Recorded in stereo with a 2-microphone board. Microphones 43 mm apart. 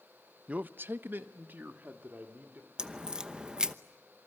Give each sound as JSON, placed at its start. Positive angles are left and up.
{"t": 0.5, "sound": "a man speaking", "side_deg": -30, "distance_m": 0.5}
{"t": 2.8, "sound": "a crack", "side_deg": -20, "distance_m": 0.9}